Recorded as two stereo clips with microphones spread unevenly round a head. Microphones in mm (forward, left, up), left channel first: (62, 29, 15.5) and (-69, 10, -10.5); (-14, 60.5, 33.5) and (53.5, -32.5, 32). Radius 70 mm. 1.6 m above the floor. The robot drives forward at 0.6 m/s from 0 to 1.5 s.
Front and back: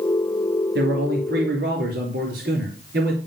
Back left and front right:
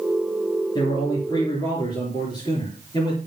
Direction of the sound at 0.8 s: 175° right.